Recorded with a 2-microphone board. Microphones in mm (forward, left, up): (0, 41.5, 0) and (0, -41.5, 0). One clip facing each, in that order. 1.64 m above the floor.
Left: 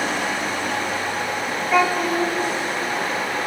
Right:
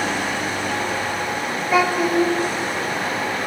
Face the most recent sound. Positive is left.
turn(degrees=-5)  # may be behind; listen again after turning